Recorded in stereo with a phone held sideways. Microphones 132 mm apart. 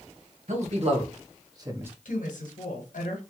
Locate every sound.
0.5 s a man speaking: 60° right (ahead or behind), 1.5 m; by 1.9 s 15° right (ahead or behind), 0.9 m
2.0 s a woman speaking: 85° left, 1.4 m